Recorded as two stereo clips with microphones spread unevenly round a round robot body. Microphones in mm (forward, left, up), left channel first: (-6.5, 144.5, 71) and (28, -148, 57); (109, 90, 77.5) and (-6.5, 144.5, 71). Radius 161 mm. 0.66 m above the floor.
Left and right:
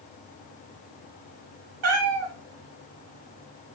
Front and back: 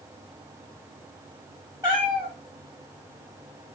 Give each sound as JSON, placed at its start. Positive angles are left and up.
{"t": 1.8, "sound": "a cat meowing", "azimuth_deg": -125, "distance_m": 1.7}